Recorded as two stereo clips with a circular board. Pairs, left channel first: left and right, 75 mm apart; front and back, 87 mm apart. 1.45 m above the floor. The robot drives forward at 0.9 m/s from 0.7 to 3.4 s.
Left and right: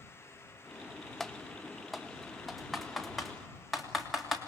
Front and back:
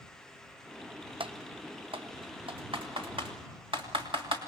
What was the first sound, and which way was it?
Typing on a keyboard, 175° left.